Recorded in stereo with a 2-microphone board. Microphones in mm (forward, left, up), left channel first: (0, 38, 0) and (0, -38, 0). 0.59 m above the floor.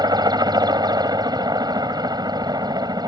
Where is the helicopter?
65° right (ahead or behind).